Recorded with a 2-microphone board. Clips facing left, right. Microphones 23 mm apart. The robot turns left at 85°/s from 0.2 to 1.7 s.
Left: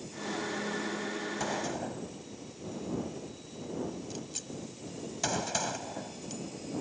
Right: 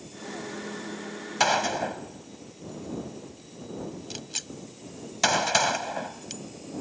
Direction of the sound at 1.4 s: 65° right (ahead or behind).